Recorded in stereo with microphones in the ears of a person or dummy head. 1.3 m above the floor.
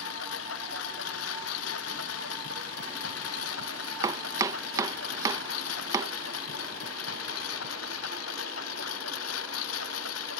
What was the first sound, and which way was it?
A lawn mower, 75° left (ahead or behind).